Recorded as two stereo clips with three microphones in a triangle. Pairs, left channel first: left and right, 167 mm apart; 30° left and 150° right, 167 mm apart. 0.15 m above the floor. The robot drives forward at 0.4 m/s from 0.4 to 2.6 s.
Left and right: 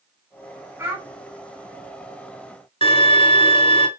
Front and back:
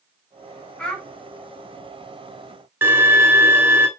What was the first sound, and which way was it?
A child speaking, 40° right.